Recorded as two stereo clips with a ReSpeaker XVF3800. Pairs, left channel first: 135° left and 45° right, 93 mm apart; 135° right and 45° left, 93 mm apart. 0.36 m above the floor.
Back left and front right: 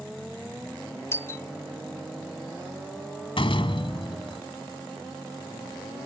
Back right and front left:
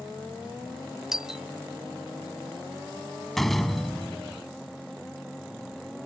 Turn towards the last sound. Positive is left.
turn(degrees=140)